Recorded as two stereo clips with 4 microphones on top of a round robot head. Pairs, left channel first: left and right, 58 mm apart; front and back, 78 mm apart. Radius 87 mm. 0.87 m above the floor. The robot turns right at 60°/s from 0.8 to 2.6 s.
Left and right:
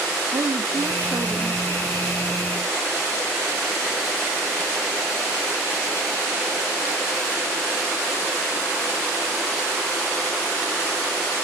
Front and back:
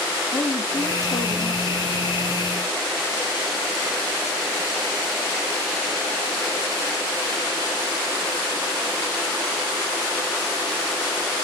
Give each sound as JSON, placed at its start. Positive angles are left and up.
{"t": 0.3, "sound": "a woman speaking", "azimuth_deg": -60, "distance_m": 1.3}